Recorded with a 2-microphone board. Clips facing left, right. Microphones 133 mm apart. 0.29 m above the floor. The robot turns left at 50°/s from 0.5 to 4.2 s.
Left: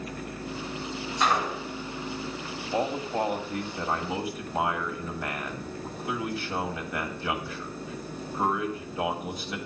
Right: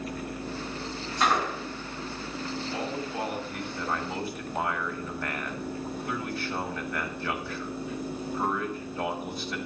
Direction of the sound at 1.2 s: Centre (ahead or behind).